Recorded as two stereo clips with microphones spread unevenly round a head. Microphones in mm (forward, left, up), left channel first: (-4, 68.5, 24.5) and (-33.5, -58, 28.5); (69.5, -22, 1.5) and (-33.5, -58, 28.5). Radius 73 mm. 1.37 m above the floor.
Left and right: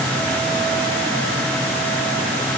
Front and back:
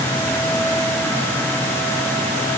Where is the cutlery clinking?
No cutlery clinking in this recording.